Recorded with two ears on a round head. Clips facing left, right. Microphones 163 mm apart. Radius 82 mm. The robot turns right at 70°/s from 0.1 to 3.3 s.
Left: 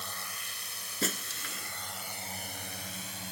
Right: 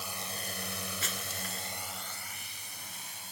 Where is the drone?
10° right (ahead or behind); by 3.3 s 60° left (ahead or behind).